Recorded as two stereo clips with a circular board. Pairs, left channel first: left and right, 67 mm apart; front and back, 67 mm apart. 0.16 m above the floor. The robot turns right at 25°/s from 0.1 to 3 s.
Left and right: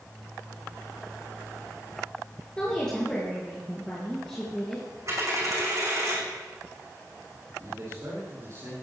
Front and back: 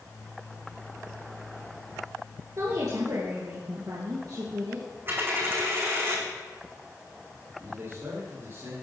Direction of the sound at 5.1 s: 125° right.